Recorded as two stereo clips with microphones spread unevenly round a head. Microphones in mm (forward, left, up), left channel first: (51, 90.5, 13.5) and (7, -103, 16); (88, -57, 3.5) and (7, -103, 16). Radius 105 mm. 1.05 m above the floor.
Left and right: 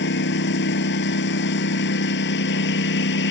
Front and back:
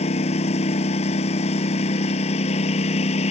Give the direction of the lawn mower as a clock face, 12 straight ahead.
10 o'clock.